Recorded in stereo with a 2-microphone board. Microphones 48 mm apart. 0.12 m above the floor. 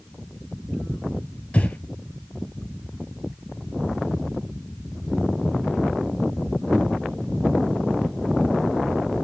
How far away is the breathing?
About 0.7 m.